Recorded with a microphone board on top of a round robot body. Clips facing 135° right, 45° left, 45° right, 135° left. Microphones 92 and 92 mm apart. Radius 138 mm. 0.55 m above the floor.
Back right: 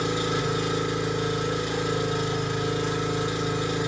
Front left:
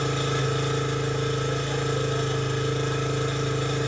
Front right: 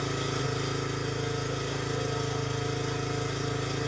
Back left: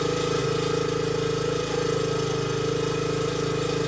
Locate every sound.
0.0 s an engine running: 150° left, 2.5 m